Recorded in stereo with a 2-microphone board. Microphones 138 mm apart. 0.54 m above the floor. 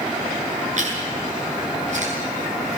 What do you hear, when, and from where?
0.8 s chewing: 55° right (ahead or behind), 8.5 m